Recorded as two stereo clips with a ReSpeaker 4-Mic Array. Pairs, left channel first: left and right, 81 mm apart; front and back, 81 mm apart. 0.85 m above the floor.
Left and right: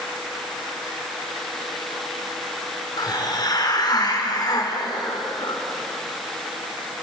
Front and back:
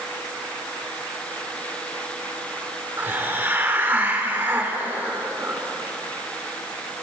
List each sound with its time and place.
3.0 s a hiss: 115° left, 3.5 m